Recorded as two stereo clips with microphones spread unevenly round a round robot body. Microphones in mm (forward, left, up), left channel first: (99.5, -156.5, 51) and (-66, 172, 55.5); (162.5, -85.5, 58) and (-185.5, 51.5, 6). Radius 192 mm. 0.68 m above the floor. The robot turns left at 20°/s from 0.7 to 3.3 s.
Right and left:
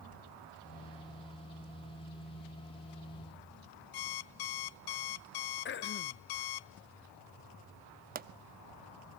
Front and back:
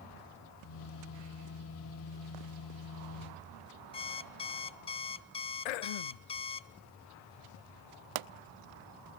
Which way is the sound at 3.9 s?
95° right.